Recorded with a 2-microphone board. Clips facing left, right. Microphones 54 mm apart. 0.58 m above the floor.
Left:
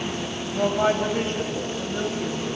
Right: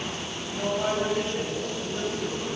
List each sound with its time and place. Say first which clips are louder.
0.5 s a woman speaking: left 5 dB; 50° left (ahead or behind), 4 m; by 2.5 s 35° left (ahead or behind), 4 m